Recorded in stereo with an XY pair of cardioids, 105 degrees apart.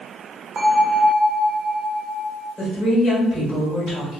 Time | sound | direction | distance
0.6 | a bell | 40° right | 0.8 m
2.6 | a woman speaking | 35° left | 1.8 m